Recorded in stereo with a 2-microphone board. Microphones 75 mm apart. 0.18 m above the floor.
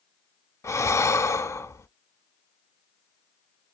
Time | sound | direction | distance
0.6 | breathing | 40° left (ahead or behind) | 0.5 m